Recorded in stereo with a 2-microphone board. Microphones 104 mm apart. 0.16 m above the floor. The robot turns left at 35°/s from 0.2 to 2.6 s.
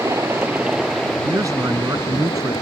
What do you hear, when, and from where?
0.0 s a helicopter: 155° right; by 2.6 s 125° left
1.2 s a man speaking: 75° right; by 2.5 s 120° right